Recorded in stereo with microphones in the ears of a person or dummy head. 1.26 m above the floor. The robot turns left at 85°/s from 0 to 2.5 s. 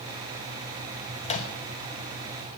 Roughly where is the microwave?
Left.